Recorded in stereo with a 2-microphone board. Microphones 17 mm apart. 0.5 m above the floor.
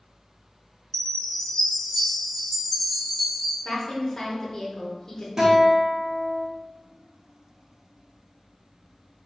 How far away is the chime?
About 1.7 m.